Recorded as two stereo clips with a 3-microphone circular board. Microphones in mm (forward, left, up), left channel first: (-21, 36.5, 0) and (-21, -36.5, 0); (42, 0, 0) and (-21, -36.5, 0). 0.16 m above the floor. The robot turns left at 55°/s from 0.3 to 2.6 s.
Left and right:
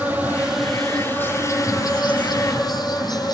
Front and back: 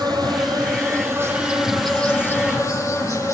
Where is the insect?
160° right, 4.5 m; by 3.3 s 75° left, 4.5 m.